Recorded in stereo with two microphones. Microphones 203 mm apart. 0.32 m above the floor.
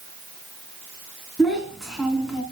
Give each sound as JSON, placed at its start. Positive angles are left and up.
{"t": 1.4, "sound": "a child speaking", "side_deg": 0, "distance_m": 2.5}